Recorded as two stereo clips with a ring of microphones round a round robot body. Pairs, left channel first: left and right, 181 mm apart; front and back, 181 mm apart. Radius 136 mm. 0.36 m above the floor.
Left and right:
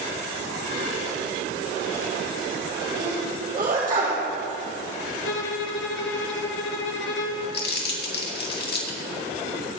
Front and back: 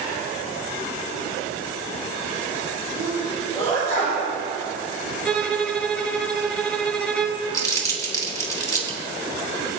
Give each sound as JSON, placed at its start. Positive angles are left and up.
{"t": 3.0, "sound": "a sneeze", "azimuth_deg": -60, "distance_m": 2.0}
{"t": 5.2, "sound": "a violin", "azimuth_deg": 85, "distance_m": 1.2}
{"t": 7.5, "sound": "crumpling", "azimuth_deg": 70, "distance_m": 2.5}